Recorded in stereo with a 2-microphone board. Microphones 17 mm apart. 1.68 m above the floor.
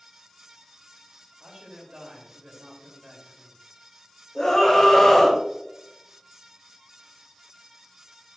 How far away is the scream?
About 3 m.